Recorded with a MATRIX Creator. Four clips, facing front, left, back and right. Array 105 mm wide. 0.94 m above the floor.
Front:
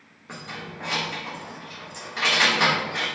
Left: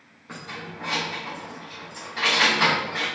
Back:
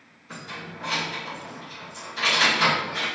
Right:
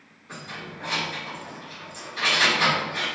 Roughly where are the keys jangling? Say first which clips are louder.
Left 1 dB, front 1 dB; ahead left.